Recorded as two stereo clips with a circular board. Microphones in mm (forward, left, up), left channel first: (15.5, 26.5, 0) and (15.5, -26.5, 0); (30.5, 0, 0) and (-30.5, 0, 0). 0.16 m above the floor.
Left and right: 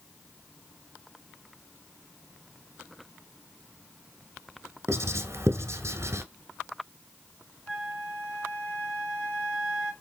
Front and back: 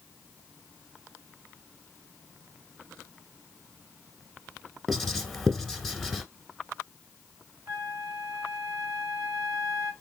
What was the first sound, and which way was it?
Writing, 90° right.